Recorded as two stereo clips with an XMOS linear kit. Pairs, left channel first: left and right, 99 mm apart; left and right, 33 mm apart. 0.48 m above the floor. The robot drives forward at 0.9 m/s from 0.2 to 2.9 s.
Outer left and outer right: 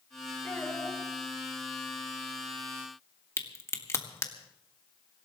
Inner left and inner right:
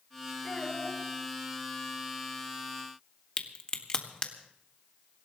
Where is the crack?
30° left (ahead or behind), 1.5 m.